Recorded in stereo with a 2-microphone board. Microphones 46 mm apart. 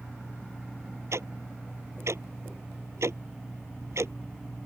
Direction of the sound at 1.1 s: 80° right.